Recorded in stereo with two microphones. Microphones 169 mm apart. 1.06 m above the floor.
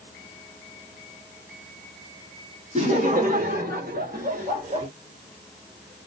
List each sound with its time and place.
2.8 s laughter: 45° right (ahead or behind), 1.2 m